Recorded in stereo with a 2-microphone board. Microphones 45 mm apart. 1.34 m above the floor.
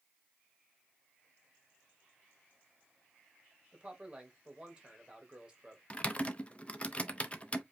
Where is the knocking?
No knocking in this recording.